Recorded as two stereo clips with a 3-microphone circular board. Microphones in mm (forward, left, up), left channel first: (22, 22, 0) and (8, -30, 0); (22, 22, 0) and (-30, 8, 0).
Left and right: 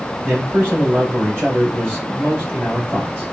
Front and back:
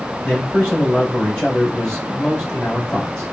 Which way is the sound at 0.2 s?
55° right.